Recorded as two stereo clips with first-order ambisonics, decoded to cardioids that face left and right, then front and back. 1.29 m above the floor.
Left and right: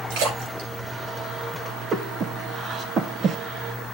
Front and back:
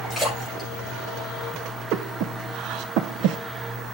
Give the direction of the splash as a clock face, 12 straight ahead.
3 o'clock.